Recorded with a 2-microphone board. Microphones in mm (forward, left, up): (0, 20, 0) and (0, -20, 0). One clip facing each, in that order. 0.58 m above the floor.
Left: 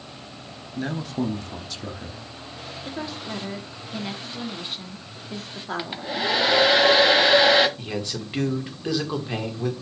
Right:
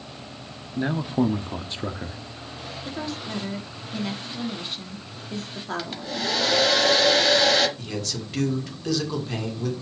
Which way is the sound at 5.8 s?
25° left (ahead or behind).